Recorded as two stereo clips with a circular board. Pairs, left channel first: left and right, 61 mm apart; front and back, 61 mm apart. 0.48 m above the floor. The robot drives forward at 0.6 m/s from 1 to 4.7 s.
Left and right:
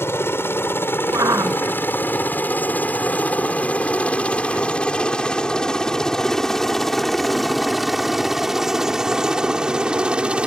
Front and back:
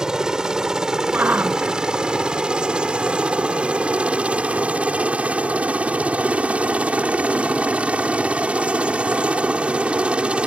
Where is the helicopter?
105° left; by 10.5 s 140° right.